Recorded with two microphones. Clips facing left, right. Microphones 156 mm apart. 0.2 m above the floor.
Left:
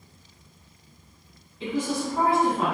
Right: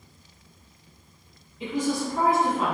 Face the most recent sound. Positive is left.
turn(degrees=50)  # may be behind; listen again after turning